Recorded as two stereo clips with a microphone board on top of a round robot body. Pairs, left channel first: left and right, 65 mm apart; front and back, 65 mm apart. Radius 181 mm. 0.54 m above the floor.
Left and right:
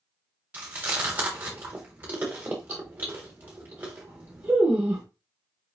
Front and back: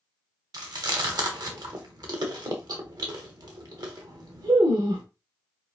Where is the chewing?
155° right, 0.9 m.